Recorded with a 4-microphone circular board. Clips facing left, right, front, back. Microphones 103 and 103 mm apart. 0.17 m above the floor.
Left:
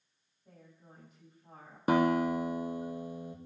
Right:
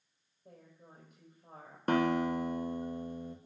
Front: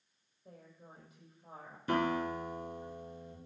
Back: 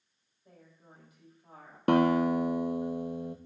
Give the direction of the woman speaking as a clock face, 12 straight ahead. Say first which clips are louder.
Right 1 dB, front 2 dB; 2 o'clock.